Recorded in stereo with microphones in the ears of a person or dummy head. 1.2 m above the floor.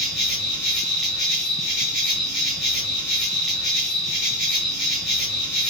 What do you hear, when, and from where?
0.0 s an insect: centre (ahead or behind), 1.3 m